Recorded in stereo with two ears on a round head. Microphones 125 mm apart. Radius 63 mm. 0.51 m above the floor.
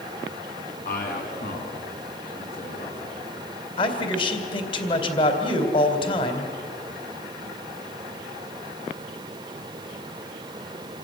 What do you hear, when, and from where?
0.8 s a man speaking: 65° left (ahead or behind), 4.5 m; by 3.0 s 75° left (ahead or behind), 6.5 m
3.8 s a man speaking: 35° left (ahead or behind), 2.5 m